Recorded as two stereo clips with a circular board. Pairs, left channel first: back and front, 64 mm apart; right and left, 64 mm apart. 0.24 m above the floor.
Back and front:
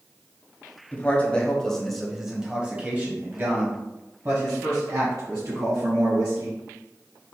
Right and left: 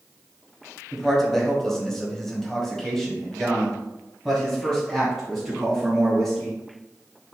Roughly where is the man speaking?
Behind.